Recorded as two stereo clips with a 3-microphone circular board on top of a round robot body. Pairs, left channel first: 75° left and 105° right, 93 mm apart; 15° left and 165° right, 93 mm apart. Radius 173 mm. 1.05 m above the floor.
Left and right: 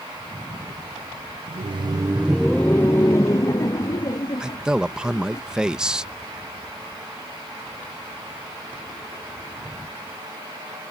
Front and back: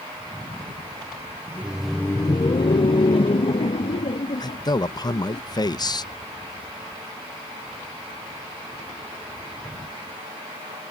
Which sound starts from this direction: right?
Laughter, at 1.5 s.